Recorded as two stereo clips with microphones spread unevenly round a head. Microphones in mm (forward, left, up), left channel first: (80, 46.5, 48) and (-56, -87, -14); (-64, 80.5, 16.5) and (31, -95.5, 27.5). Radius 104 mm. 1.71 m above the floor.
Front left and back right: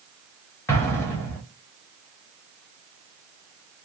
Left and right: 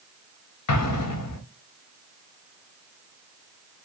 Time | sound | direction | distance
0.7 | an explosion | 115° left | 0.6 m